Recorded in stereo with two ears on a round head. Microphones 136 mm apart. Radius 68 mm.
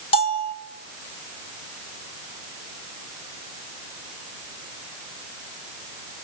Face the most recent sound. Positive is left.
turn(degrees=40)  # may be behind; listen again after turning